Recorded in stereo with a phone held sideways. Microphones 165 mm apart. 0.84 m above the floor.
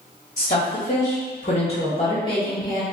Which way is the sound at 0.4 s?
50° left (ahead or behind).